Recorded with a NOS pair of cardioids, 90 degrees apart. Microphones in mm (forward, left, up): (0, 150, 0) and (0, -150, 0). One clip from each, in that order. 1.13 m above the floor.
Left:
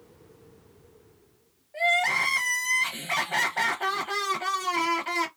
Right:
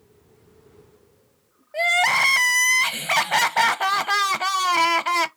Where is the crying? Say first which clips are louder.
Right 5 dB; 50° right, 0.7 m.